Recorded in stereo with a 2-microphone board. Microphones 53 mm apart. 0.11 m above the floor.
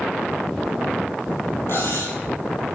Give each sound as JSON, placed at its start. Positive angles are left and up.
{"t": 1.7, "sound": "cutlery clinking", "side_deg": 55, "distance_m": 1.9}